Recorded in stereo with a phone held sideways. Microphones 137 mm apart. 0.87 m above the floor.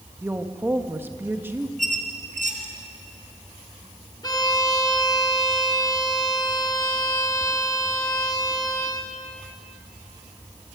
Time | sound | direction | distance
0.2 | a woman speaking | 15° right (ahead or behind) | 1.3 m
1.8 | a squeak | 70° right (ahead or behind) | 2.5 m
4.2 | a violin | 30° left (ahead or behind) | 2.5 m